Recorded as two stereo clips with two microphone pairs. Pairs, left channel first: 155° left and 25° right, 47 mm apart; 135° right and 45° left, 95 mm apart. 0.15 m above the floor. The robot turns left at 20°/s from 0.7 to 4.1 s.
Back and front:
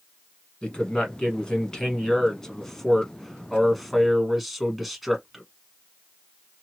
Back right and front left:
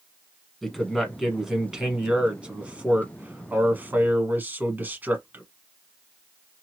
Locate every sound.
0.6 s a man speaking: 130° left, 1.0 m; by 5.4 s 65° left, 1.0 m